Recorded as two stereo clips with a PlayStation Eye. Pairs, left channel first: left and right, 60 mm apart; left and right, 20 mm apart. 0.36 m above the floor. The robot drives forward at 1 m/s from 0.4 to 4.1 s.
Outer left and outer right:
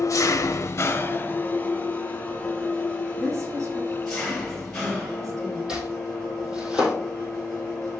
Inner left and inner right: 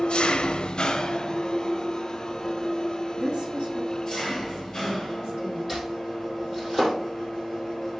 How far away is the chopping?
About 5 m.